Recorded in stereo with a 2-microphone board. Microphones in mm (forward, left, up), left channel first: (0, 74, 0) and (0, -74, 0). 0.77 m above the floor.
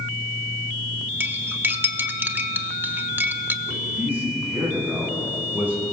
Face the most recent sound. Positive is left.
turn(degrees=-15)  # may be behind; listen again after turning